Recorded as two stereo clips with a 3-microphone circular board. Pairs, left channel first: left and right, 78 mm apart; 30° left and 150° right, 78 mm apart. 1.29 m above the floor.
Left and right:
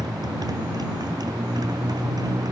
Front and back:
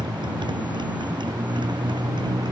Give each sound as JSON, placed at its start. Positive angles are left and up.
{"t": 0.0, "sound": "a motorcycle", "azimuth_deg": -125}